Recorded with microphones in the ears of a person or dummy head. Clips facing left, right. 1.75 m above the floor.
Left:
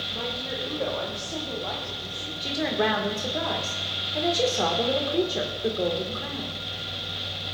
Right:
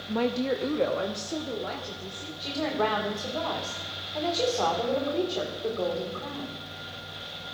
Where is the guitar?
I don't hear a guitar.